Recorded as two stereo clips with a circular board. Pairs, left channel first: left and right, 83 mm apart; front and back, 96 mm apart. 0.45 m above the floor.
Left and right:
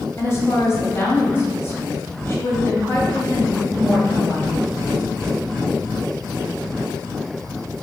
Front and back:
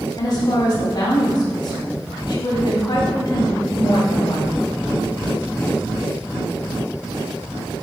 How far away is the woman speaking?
About 2 m.